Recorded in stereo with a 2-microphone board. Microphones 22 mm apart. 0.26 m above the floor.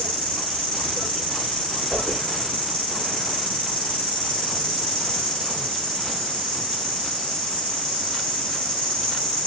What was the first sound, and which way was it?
An insect, 40° left (ahead or behind).